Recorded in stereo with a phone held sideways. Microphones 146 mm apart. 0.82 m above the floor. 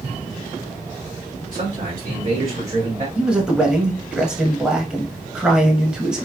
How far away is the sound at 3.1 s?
About 1.0 m.